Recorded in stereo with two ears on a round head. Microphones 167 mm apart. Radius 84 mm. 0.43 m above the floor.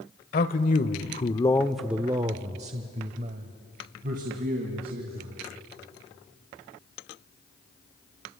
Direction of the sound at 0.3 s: 50° left (ahead or behind).